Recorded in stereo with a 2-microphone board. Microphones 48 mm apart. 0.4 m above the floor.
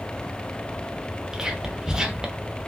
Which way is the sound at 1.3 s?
15° right (ahead or behind).